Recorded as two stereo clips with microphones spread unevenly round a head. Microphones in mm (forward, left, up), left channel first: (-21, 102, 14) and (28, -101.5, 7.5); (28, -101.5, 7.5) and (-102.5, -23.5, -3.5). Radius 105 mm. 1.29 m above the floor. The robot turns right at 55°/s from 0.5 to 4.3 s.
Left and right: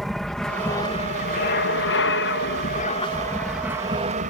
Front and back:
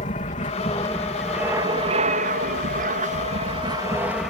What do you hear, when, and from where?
0.0 s an aircraft: 15° left; by 4.3 s 120° right